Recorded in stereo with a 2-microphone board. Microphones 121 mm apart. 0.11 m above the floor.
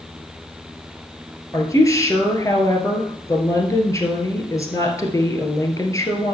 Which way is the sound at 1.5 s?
25° left (ahead or behind).